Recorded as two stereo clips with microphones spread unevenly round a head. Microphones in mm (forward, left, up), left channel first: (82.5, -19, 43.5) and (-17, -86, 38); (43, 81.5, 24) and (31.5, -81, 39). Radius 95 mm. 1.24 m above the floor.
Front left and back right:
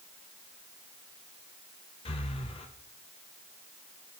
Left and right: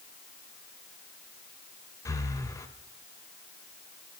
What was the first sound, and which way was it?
Breathing, 15° left.